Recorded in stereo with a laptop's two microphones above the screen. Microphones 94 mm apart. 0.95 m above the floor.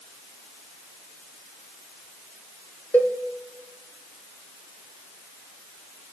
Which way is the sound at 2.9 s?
20° left (ahead or behind).